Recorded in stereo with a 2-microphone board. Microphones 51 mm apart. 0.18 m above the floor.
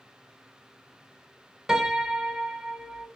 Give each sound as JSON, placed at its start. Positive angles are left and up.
{"t": 1.7, "sound": "a piano", "side_deg": -10, "distance_m": 0.6}